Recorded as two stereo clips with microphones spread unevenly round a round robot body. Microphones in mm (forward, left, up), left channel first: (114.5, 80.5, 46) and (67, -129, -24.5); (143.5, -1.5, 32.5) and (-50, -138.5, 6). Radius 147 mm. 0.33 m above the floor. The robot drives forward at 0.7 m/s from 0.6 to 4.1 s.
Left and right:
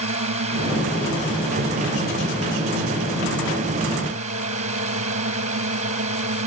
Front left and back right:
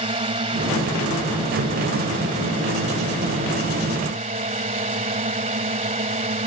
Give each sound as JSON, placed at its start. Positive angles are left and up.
{"t": 0.0, "sound": "a drone", "azimuth_deg": -90}